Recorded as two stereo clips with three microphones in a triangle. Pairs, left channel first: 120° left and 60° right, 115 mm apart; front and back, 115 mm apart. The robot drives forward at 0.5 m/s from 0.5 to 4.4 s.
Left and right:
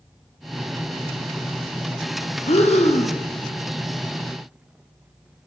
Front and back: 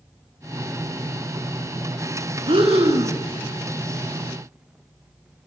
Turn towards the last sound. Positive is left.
turn(degrees=155)